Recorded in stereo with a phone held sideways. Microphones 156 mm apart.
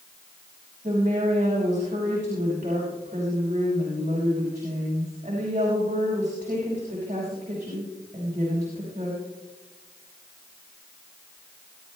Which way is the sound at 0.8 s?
50° right (ahead or behind).